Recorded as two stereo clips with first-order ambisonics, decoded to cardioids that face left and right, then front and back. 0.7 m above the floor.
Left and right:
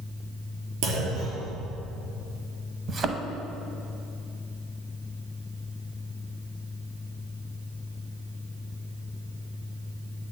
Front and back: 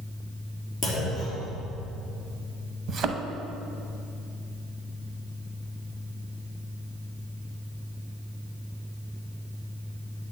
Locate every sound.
0.8 s a clunk: 80° right, 3 m
2.9 s a thud: 140° right, 0.6 m